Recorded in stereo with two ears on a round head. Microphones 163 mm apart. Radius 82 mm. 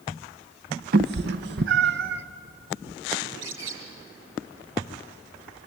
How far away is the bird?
About 4 m.